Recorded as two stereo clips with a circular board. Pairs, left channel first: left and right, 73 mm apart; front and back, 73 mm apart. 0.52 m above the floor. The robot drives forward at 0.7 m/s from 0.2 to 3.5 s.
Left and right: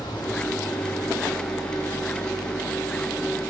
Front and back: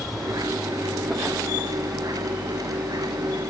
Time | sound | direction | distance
0.0 | an engine running | 85° left | 5 m